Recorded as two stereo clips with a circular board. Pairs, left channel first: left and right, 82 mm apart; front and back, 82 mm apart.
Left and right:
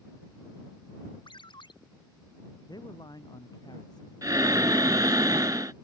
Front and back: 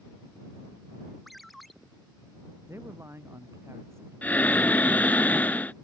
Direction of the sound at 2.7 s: 125° left.